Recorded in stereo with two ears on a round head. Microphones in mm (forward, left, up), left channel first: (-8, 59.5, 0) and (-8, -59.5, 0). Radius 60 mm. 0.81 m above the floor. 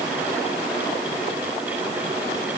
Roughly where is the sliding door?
I don't hear a sliding door.